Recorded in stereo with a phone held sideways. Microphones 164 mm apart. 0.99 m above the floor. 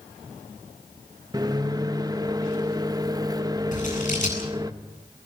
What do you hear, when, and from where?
1.3 s a microwave: 25° right (ahead or behind), 1.1 m
3.7 s scissors: 50° left (ahead or behind), 9 m